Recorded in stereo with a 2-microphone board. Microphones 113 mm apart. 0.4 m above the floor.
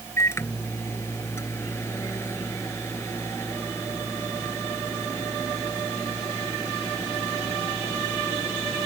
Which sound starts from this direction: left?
A microwave, at 0.2 s.